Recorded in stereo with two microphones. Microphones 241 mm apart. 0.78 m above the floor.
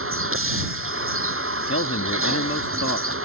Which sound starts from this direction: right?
A vehicle, at 0.0 s.